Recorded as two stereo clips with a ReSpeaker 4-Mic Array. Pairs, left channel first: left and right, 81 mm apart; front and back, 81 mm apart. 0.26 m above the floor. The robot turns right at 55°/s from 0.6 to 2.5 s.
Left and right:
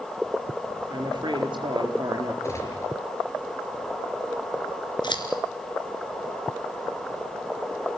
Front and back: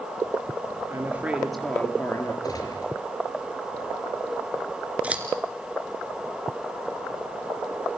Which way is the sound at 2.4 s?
35° left.